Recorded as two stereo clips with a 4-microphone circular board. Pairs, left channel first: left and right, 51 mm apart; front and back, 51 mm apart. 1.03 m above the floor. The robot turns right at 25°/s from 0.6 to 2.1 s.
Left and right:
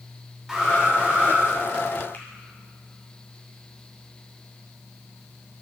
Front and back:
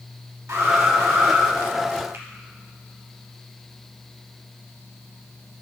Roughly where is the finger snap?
Behind left.